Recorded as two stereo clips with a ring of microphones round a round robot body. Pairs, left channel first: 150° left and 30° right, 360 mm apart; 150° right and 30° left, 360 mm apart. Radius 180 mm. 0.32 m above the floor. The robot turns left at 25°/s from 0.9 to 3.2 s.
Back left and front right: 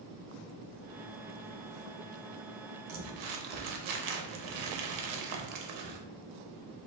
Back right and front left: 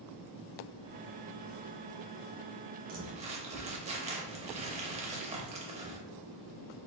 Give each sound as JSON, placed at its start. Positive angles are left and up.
{"t": 2.9, "sound": "crumpling", "azimuth_deg": -30, "distance_m": 0.6}